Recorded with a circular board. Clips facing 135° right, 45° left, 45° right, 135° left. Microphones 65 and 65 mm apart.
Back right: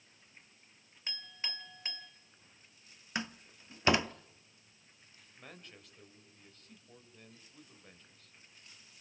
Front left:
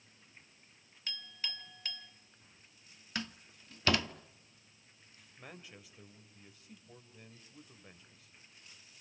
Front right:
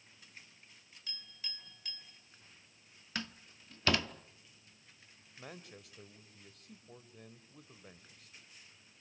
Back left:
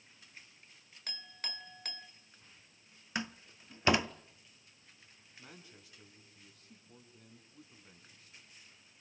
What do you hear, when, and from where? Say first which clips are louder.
1.1 s a clink: even, back left 5 dB; 160° left, 1.6 m
3.1 s a door slam: back right 2 dB, back left 3 dB; straight behind, 0.6 m
5.4 s a man speaking: front left 1 dB, front right 5 dB; 35° right, 3 m